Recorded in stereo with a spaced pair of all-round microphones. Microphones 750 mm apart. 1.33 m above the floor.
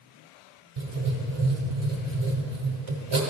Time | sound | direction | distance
0.8 | writing | 40° right (ahead or behind) | 1.3 m